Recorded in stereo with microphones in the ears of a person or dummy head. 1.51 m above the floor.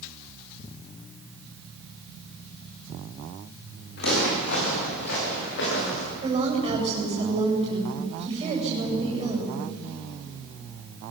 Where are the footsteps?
65° left (ahead or behind), 8 m.